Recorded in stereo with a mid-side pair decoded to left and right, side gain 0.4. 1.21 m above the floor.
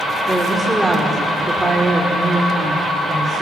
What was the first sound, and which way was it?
A woman speaking, 5° right.